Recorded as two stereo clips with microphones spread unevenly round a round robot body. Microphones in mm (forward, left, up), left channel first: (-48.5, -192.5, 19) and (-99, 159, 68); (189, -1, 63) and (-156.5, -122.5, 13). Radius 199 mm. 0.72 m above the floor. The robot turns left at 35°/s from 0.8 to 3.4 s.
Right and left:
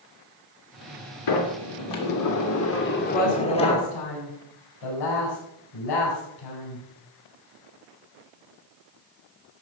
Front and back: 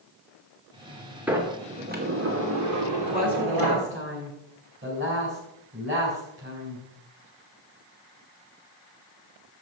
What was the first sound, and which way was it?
A sliding door, 80° right.